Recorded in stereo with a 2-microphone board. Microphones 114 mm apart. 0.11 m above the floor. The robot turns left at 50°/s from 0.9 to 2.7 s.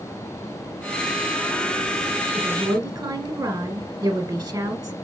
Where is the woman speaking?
25° right (ahead or behind), 1.7 m; by 5.0 s 30° right (ahead or behind), 1.7 m.